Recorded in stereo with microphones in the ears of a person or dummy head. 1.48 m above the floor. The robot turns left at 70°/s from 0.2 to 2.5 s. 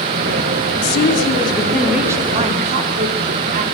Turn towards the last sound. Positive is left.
turn(degrees=-45)